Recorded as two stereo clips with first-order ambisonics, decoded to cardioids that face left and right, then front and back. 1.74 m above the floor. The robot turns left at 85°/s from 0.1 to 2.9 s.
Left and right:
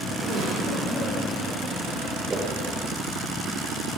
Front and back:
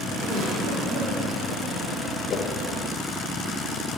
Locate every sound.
0.2 s a giggle: 130° right, 4.5 m; by 1.1 s 150° left, 4.5 m
2.3 s a whoosh: 25° right, 1.0 m; by 2.5 s 40° right, 1.0 m